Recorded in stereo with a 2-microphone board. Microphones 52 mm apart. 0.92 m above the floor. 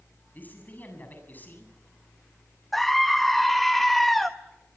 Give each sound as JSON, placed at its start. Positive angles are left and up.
{"t": 0.3, "sound": "a man speaking", "side_deg": 35, "distance_m": 7.5}
{"t": 2.7, "sound": "a scream", "side_deg": 5, "distance_m": 0.8}